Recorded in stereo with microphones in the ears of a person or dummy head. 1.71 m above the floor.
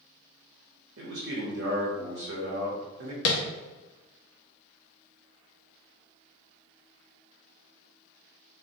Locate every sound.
1.0 s a man speaking: 70° right (ahead or behind), 0.9 m
3.2 s tapping: 65° left (ahead or behind), 0.5 m